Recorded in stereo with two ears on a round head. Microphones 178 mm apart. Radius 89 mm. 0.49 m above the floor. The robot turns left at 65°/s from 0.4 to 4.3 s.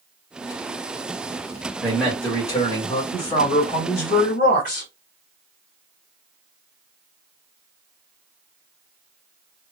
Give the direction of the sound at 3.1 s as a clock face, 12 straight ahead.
7 o'clock.